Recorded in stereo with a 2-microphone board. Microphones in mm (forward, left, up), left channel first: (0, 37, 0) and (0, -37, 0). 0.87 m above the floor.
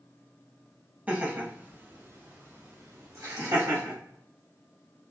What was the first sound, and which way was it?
Laughter, 20° right (ahead or behind).